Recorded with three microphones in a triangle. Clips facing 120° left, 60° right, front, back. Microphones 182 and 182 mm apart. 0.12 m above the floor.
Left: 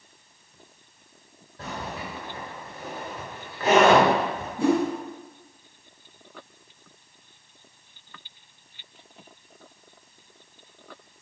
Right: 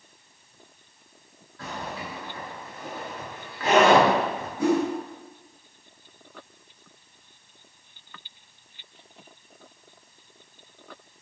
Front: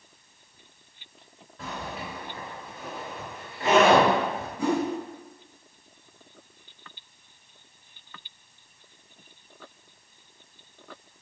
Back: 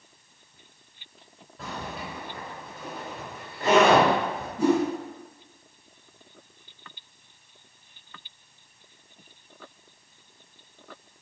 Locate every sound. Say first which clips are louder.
1.6 s a zipper: even, even; 100° left, 1.8 m
4.6 s a whoosh: left 1 dB, back 4 dB; 160° left, 1.2 m